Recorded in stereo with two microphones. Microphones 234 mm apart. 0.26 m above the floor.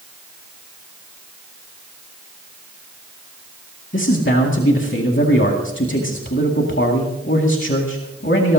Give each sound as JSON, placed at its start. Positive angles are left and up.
{"t": 3.9, "sound": "a man speaking", "side_deg": 55, "distance_m": 2.0}